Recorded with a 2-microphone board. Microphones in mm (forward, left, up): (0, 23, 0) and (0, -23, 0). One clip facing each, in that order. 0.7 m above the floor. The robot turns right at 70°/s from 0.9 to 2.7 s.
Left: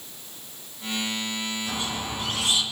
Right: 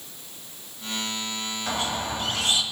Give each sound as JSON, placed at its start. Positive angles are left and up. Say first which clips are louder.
{"t": 1.7, "sound": "a squeak", "louder": "right 2 dB", "azimuth_deg": -100, "distance_m": 2.0}